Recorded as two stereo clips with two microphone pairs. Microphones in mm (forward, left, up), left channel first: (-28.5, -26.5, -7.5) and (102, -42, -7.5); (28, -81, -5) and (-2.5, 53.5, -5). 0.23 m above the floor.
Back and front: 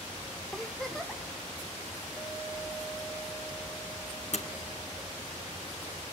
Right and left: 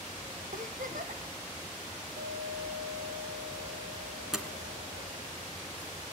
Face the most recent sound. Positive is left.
turn(degrees=-170)